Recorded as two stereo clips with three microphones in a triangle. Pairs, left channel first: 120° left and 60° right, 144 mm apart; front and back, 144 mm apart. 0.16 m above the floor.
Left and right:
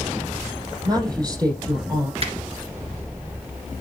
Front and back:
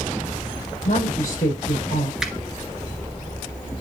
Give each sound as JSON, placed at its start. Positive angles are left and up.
{"t": 0.8, "sound": "a woman speaking", "azimuth_deg": 0, "distance_m": 4.5}
{"t": 2.2, "sound": "a finger snap", "azimuth_deg": -95, "distance_m": 1.8}